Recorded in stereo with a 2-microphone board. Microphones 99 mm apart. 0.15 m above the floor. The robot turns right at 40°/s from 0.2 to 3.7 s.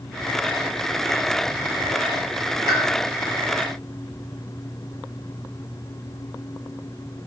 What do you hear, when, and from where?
2.7 s a pop: 30° left (ahead or behind), 0.7 m; by 2.8 s 25° left (ahead or behind), 0.7 m